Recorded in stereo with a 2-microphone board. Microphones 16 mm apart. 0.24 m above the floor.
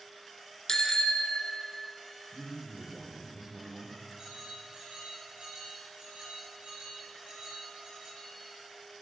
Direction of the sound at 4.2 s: 35° right (ahead or behind).